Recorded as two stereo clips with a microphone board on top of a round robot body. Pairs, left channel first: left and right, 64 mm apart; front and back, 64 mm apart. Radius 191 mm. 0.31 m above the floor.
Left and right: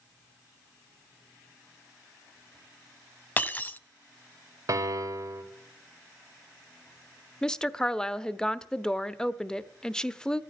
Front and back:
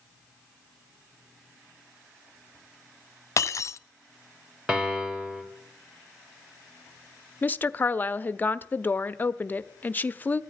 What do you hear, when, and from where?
3.4 s breaking glass: 30° left, 1.0 m
4.7 s a piano: 105° right, 2.5 m
7.4 s a woman speaking: 25° left, 0.9 m